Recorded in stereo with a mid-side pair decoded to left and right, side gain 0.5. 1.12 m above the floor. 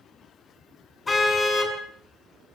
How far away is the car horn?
About 6.5 m.